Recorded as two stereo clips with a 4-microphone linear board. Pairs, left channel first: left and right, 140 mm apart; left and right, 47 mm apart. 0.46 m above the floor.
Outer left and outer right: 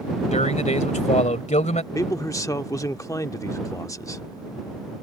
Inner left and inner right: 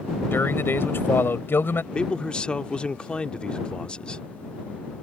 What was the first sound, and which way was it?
A man speaking, 55° left (ahead or behind).